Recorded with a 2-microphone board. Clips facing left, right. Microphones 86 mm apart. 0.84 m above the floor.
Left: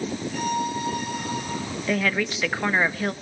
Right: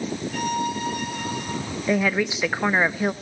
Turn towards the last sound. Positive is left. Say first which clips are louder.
# right 3 dB
turn(degrees=-10)  # may be behind; listen again after turning